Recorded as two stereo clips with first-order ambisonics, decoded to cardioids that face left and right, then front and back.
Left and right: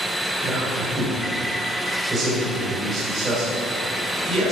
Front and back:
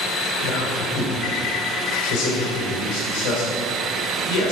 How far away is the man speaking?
About 3 m.